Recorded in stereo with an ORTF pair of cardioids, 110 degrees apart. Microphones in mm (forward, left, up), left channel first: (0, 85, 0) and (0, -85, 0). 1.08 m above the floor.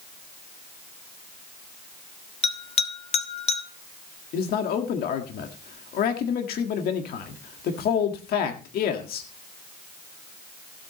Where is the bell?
40° left, 1.4 m.